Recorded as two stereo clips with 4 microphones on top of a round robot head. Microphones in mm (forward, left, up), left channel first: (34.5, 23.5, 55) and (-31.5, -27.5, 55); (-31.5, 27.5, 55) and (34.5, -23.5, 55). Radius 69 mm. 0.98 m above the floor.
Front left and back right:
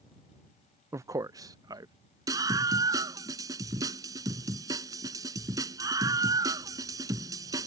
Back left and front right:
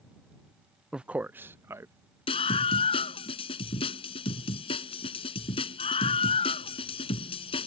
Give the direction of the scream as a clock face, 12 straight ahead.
7 o'clock.